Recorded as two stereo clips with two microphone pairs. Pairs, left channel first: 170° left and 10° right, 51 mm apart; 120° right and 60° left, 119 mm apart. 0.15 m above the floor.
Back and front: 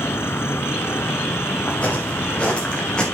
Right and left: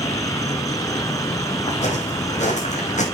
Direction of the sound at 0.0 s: 170° right.